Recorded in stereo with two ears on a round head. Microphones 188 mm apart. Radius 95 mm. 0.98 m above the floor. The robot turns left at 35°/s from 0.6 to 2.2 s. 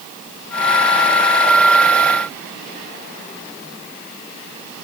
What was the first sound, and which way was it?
Only background noise.